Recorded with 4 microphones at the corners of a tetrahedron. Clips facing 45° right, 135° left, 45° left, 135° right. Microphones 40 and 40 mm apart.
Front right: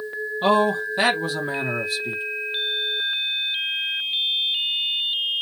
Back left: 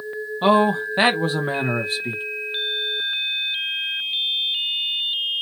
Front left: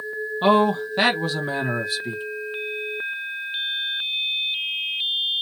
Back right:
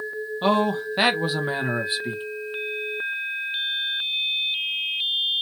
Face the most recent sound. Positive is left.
turn(degrees=165)